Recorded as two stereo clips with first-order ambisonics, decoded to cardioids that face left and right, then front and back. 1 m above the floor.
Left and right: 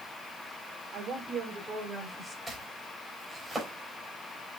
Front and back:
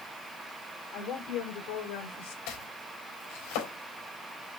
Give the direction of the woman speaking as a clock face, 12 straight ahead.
1 o'clock.